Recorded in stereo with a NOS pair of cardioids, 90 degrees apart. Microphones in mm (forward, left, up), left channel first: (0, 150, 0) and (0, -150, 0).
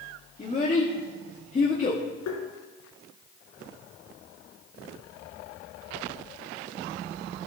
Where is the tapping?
70° left, 3 m.